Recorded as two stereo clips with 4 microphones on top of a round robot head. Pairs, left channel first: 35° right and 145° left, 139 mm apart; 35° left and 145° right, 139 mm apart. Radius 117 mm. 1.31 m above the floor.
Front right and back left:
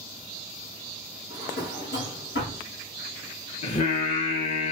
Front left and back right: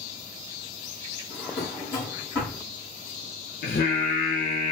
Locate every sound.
1.3 s a drawer: 35° right, 1.4 m
3.6 s singing: 10° left, 0.5 m